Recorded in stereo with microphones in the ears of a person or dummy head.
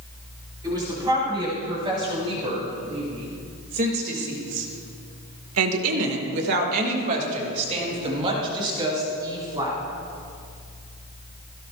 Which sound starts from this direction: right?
A woman speaking, at 0.6 s.